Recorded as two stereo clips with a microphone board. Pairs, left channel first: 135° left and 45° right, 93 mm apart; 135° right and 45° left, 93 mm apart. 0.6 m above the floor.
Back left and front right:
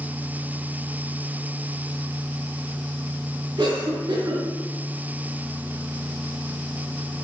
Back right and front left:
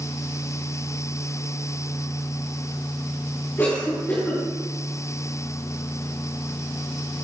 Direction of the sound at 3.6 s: 75° right.